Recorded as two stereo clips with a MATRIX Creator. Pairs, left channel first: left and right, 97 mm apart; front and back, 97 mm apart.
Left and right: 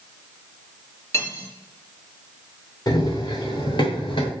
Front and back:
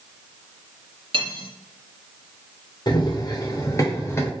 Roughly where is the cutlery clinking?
Behind left.